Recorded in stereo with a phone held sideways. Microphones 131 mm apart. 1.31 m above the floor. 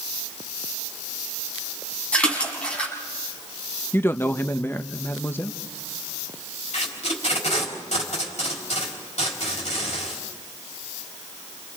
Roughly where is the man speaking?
Centre.